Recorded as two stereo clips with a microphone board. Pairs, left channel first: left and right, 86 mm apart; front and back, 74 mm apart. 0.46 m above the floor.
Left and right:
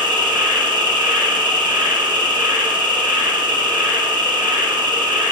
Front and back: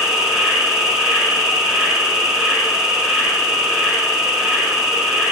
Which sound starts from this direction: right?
An insect, at 0.0 s.